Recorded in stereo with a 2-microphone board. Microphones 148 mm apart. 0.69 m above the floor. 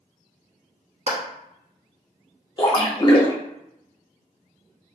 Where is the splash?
30° left (ahead or behind), 0.7 m.